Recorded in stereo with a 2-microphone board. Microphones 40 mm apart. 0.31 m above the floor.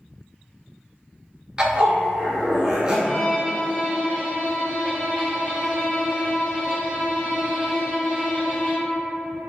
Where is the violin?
25° left (ahead or behind), 1.6 m.